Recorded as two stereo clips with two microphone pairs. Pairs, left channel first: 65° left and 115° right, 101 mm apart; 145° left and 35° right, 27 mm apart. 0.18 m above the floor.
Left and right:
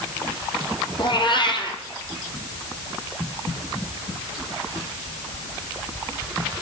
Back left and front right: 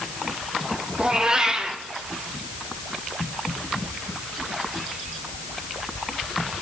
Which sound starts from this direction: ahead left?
A cat meowing, at 1.0 s.